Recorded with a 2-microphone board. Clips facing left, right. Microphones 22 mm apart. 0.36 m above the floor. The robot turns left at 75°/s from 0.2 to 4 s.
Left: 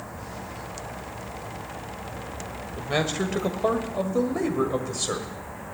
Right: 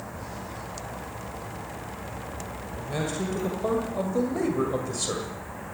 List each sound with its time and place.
2.8 s a man speaking: 110° left, 1.8 m; by 5.3 s 15° left, 1.8 m